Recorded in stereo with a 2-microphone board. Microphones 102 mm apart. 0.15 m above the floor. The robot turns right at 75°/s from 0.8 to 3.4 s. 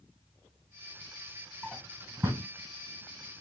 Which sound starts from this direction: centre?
A drawer, at 1.6 s.